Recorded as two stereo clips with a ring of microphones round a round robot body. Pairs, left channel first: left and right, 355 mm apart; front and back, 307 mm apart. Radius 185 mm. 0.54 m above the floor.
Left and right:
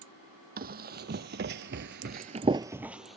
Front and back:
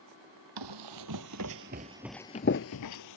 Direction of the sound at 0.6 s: 155° right.